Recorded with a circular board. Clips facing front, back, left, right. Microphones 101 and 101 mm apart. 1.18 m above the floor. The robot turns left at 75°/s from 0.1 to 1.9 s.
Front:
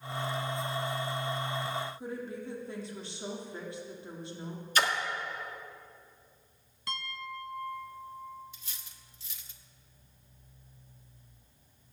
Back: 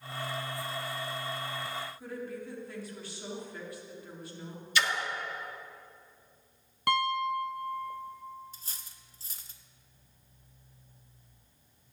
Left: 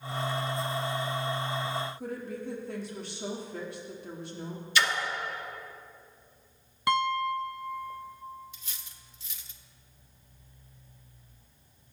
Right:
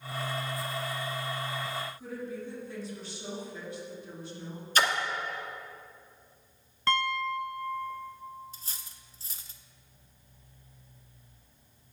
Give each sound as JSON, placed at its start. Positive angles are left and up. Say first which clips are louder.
{"t": 2.0, "sound": "a woman speaking", "louder": "front 1 dB, left 1 dB", "azimuth_deg": 65, "distance_m": 2.0}
{"t": 4.8, "sound": "a splash", "louder": "front 1 dB, right 1 dB", "azimuth_deg": -45, "distance_m": 1.3}
{"t": 6.9, "sound": "a piano", "louder": "back 13 dB, left 3 dB", "azimuth_deg": 165, "distance_m": 0.6}
{"t": 8.5, "sound": "cutlery clinking", "louder": "back 2 dB, right 2 dB", "azimuth_deg": -135, "distance_m": 0.7}